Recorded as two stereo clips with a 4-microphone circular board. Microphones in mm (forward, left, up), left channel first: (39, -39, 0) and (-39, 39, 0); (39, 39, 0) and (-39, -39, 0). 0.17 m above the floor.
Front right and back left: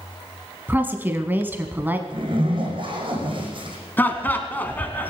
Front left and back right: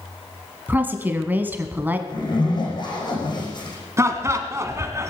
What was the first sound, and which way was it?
A woman speaking, straight behind.